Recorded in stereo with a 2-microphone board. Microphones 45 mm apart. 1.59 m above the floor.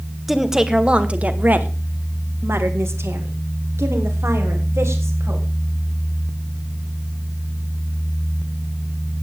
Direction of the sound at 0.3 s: 5° right (ahead or behind).